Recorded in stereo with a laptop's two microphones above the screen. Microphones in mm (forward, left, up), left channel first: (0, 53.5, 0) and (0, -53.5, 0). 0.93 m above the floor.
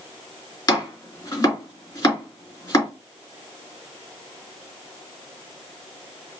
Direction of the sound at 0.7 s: 40° left (ahead or behind).